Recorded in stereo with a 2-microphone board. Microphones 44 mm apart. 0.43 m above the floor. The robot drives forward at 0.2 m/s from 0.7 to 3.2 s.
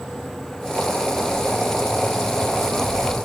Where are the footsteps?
35° right (ahead or behind), 3 m; by 3.1 s 25° right (ahead or behind), 2.5 m.